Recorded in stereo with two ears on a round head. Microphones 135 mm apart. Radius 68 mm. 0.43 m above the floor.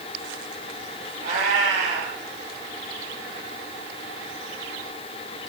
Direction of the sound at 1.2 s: 50° right (ahead or behind).